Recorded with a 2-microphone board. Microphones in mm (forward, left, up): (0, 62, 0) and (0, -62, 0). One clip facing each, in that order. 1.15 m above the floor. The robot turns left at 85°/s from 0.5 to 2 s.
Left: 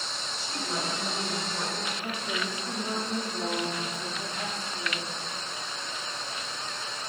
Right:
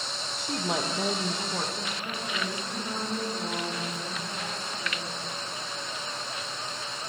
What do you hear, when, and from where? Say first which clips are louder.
0.4 s a woman speaking: right 4 dB; 55° right, 1.0 m; by 1.9 s straight behind, 1.0 m
2.0 s a woman speaking: even; 45° left (ahead or behind), 3.5 m